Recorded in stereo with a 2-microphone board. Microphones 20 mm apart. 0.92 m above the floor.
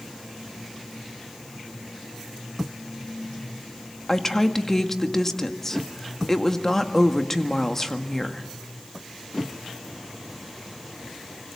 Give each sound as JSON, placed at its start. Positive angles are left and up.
{"t": 4.1, "sound": "a woman speaking", "side_deg": 25, "distance_m": 1.8}